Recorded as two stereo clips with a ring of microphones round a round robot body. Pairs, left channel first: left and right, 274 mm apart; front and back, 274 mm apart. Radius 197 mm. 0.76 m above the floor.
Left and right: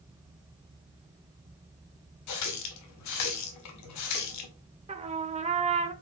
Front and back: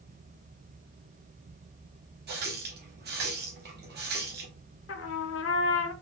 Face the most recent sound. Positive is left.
turn(degrees=-25)